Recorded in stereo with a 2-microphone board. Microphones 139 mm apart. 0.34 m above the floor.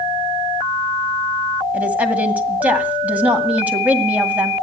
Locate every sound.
1.7 s a woman speaking: 10° right (ahead or behind), 2.0 m